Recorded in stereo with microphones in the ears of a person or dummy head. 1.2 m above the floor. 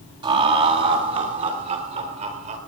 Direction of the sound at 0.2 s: 35° right (ahead or behind).